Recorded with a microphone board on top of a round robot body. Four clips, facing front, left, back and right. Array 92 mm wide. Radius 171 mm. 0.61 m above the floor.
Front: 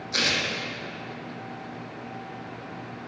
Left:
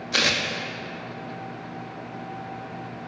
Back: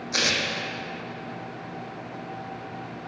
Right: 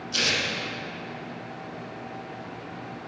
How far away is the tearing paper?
About 1.3 m.